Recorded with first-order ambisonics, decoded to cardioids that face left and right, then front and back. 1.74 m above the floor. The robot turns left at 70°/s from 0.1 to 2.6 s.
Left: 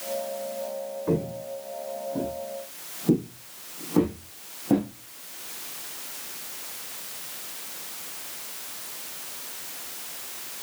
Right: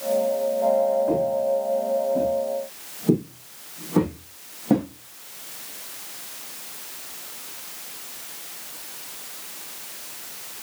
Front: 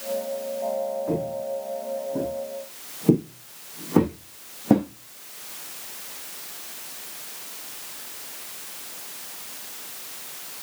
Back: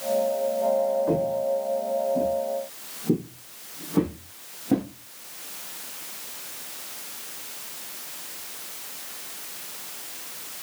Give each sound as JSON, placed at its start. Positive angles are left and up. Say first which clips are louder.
{"t": 1.1, "sound": "footsteps", "louder": "right 8 dB, back 4 dB", "azimuth_deg": 110, "distance_m": 6.5}